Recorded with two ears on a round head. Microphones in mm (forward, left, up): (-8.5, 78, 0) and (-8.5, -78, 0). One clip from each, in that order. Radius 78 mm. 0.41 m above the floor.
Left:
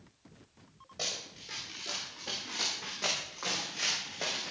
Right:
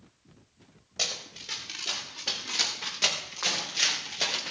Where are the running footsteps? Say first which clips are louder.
Right 5 dB; 55° right (ahead or behind), 6.5 m; by 4.5 s 65° right (ahead or behind), 4 m.